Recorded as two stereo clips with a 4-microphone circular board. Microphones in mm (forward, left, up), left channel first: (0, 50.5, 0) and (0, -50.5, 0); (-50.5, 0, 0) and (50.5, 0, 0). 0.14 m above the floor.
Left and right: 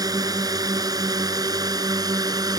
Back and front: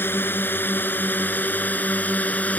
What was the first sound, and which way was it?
A drone, 120° right.